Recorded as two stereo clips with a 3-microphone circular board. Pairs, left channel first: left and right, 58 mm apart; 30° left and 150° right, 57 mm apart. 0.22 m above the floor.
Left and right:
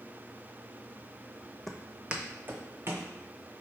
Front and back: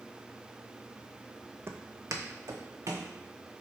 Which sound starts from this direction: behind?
Footsteps, at 1.7 s.